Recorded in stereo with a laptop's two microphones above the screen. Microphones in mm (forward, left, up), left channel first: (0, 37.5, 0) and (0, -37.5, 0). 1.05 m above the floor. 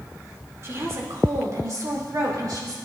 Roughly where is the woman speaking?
Right.